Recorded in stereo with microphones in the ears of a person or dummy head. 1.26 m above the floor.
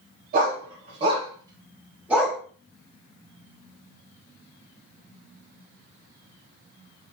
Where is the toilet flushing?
No toilet flushing in this recording.